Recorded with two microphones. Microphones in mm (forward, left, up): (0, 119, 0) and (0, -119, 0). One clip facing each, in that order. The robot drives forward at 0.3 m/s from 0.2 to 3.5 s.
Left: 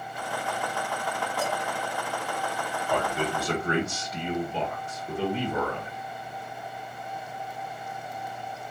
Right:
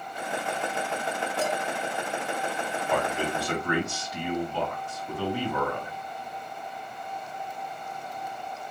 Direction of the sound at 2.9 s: 30° left (ahead or behind).